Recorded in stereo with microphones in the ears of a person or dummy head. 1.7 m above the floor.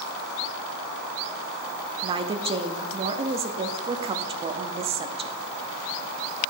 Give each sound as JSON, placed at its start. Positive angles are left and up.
{"t": 2.0, "sound": "a woman speaking", "side_deg": -25, "distance_m": 0.7}